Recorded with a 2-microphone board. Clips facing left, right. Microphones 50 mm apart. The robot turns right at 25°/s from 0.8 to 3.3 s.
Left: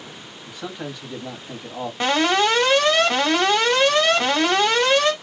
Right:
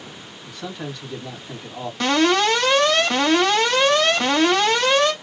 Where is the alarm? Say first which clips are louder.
Right 1 dB; 20° left (ahead or behind), 2 m; by 5.1 s 15° left (ahead or behind), 2 m.